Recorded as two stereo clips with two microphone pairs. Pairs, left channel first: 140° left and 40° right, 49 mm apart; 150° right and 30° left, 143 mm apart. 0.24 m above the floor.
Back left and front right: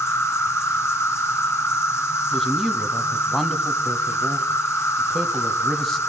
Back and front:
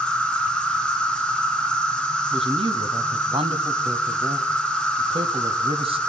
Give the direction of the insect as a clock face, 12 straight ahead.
8 o'clock.